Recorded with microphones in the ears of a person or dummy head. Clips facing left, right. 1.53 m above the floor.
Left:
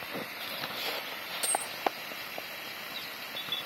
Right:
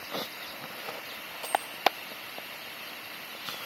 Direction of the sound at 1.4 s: 25° left (ahead or behind).